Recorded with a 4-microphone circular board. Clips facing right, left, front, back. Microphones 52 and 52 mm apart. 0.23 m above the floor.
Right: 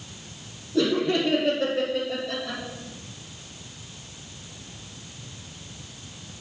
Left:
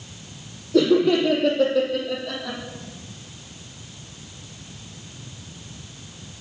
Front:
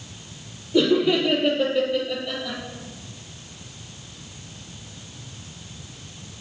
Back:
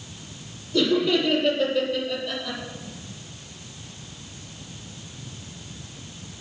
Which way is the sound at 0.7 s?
70° left.